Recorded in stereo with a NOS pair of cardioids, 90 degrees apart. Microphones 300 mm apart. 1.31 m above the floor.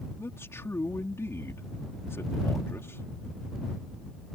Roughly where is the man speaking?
Ahead.